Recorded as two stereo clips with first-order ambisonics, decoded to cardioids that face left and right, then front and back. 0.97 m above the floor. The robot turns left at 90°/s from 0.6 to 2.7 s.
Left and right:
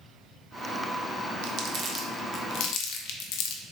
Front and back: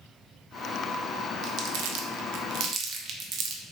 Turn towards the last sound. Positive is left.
turn(degrees=125)